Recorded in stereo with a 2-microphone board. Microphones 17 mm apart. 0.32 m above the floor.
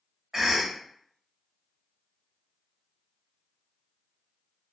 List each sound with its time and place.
0.3 s a cough: 25° right (ahead or behind), 1.1 m